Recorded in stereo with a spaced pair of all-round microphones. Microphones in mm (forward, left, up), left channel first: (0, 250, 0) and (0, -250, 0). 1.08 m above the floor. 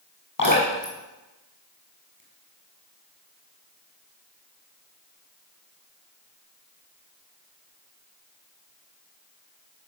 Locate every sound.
0.4 s dripping: 35° left (ahead or behind), 5.5 m